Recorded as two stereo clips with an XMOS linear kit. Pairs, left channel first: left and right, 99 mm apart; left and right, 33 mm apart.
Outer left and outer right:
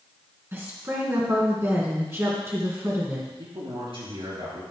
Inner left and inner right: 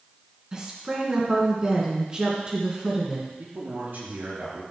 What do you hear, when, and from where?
0.5 s a woman speaking: 25° right (ahead or behind), 2.5 m
3.4 s a man speaking: 65° right (ahead or behind), 4 m